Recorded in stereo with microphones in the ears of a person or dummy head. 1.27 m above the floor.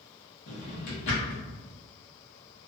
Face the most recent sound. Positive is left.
turn(degrees=55)  # may be behind; listen again after turning